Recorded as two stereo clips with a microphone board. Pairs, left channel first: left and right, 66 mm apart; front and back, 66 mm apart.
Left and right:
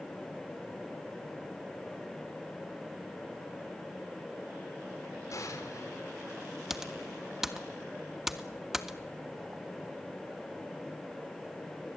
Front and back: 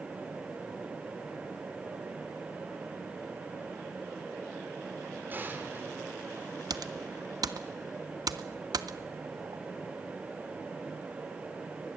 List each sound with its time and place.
5.3 s an explosion: 120° left, 3 m
6.7 s typing on a keyboard: 175° right, 1.0 m